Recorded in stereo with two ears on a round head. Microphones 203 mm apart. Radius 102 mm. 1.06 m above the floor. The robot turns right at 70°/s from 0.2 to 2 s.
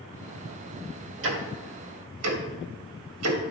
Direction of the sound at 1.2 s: 60° right (ahead or behind).